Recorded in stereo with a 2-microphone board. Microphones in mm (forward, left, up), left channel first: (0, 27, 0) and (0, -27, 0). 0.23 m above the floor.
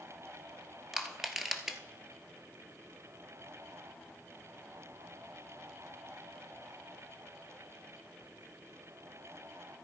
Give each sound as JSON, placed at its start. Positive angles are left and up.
{"t": 0.9, "sound": "crushing", "side_deg": -10, "distance_m": 1.1}